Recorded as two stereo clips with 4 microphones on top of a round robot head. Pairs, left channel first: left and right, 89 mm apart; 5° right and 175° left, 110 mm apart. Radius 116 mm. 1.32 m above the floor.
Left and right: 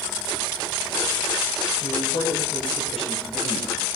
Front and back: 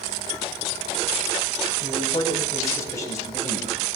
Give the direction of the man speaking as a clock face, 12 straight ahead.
10 o'clock.